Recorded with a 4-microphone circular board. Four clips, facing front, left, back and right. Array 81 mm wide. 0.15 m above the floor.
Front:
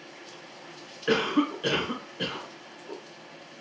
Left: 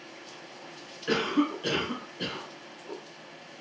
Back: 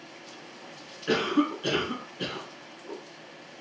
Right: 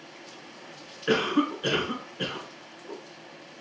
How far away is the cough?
About 1.6 m.